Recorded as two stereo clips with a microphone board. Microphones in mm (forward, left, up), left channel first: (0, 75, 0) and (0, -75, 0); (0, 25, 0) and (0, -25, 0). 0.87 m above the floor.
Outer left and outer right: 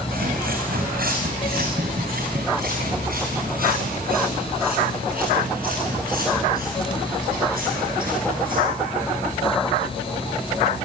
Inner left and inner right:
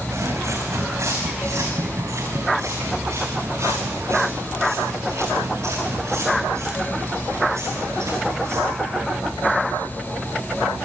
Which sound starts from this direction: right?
Footsteps, at 0.1 s.